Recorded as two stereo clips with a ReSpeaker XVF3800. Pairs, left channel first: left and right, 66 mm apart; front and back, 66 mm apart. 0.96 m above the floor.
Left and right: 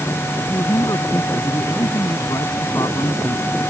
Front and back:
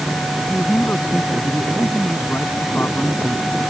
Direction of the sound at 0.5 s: 60° left.